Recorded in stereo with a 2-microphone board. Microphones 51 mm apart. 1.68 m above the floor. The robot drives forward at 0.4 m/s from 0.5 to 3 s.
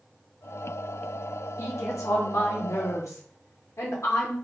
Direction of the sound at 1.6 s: 70° left (ahead or behind).